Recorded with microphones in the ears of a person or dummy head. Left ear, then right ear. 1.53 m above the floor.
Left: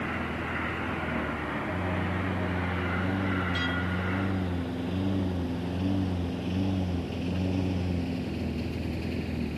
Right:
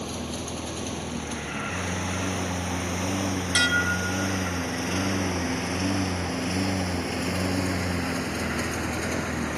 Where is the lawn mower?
80° right; by 9.6 s 50° right (ahead or behind).